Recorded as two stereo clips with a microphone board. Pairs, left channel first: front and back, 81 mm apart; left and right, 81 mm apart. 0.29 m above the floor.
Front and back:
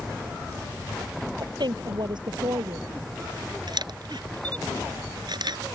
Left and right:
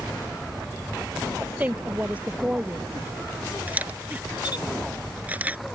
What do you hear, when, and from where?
1.4 s a woman speaking: 160° right
3.7 s a camera shutter: 160° right